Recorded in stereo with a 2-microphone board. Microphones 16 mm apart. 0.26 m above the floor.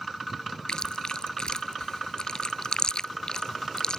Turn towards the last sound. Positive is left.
turn(degrees=70)  # may be behind; listen again after turning